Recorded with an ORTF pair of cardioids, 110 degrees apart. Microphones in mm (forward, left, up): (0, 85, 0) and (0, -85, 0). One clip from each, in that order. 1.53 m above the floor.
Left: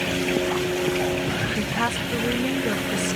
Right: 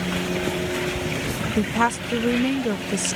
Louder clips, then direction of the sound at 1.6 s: Right 3 dB; 35° right.